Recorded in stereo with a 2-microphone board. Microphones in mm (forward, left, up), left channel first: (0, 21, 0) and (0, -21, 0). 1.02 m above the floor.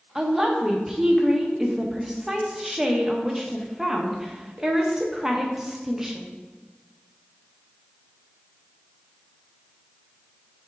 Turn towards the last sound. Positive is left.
turn(degrees=-10)  # may be behind; listen again after turning